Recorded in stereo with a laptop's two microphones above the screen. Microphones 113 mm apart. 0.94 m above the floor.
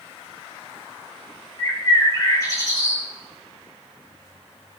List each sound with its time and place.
1.6 s a bird: 30° left (ahead or behind), 1.6 m